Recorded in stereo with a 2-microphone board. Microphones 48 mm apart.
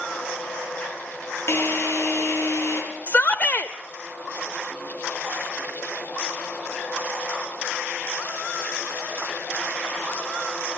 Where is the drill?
70° left (ahead or behind), 8.5 m.